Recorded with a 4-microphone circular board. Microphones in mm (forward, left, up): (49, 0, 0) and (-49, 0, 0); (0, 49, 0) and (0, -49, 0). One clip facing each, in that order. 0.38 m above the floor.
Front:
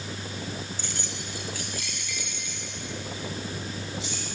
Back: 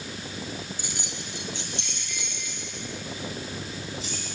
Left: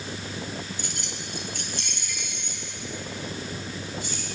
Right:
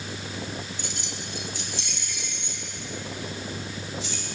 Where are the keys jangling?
105° left, 1.2 m; by 4.2 s 130° left, 4.5 m.